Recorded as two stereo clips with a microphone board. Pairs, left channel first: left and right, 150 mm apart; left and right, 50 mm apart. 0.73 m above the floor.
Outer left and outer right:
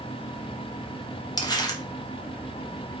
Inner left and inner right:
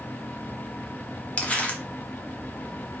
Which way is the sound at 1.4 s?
30° left (ahead or behind).